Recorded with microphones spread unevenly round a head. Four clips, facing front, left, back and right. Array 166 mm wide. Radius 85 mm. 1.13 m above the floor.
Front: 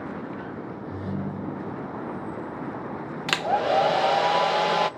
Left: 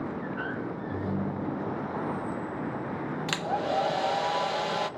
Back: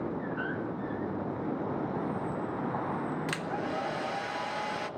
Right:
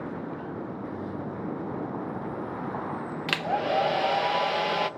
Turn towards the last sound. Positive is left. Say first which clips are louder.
# right 3 dB, front 11 dB
turn(degrees=-10)